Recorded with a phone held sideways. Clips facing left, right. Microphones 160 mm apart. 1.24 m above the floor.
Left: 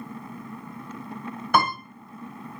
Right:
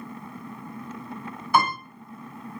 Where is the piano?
55° left (ahead or behind), 2.5 m.